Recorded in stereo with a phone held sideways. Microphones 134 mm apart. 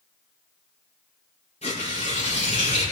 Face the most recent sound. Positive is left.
turn(degrees=55)  # may be behind; listen again after turning